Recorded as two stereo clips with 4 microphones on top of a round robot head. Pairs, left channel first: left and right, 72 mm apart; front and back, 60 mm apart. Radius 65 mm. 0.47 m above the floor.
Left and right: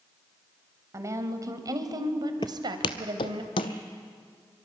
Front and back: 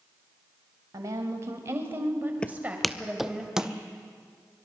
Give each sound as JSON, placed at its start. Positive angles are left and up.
{"t": 0.9, "sound": "a woman speaking", "azimuth_deg": -140, "distance_m": 2.5}
{"t": 2.4, "sound": "footsteps", "azimuth_deg": 65, "distance_m": 0.5}